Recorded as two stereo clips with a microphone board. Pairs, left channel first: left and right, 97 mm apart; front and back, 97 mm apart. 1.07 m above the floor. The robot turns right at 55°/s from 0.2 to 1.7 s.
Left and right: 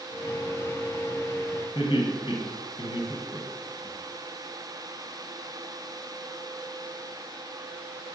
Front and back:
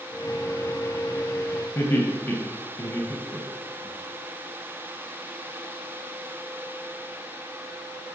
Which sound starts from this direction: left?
Laughter, at 1.8 s.